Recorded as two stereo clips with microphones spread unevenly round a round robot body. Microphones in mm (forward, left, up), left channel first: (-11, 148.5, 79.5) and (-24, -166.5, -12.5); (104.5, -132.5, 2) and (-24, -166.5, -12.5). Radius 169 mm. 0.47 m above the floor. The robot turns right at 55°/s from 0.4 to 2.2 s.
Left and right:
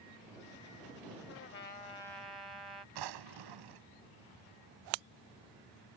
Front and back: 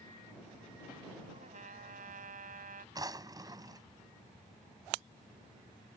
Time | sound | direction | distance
1.3 | a trumpet | 135° left | ?
3.0 | a drawer | 100° right | ?